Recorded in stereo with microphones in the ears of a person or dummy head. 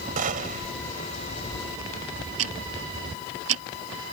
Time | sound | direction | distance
0.2 | a gunshot | 40° right (ahead or behind) | ?
2.4 | ticking | 75° right (ahead or behind) | ?